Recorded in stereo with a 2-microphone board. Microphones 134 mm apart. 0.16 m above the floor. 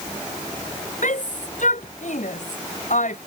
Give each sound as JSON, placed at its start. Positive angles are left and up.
{"t": 1.0, "sound": "a shout", "side_deg": 70}